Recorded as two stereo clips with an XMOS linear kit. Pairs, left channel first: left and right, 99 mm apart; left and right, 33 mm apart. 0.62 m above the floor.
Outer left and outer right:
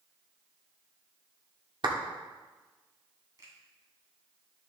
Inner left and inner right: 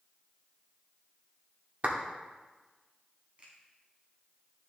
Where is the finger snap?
45° right (ahead or behind), 3.5 m.